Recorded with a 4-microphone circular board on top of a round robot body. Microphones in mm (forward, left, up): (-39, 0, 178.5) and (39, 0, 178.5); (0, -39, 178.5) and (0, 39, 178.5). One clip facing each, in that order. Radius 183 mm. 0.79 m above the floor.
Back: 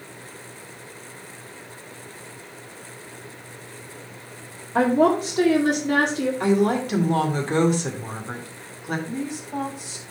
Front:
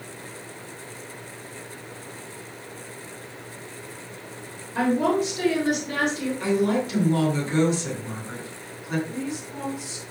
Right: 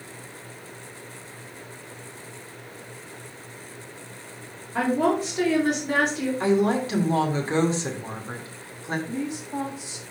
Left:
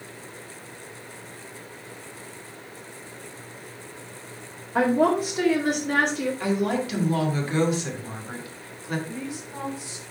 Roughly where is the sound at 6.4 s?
Behind right.